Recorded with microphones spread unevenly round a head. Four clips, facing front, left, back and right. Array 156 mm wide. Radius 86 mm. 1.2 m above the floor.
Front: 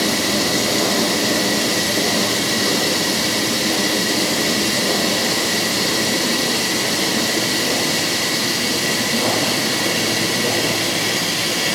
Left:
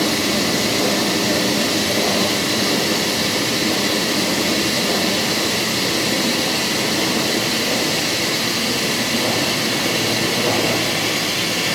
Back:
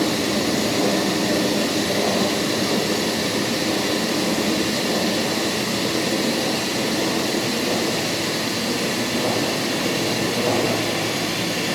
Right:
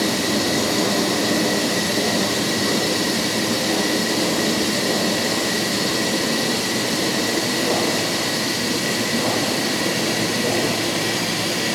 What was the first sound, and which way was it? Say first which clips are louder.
Running water: left 1 dB, front 1 dB; 130° left.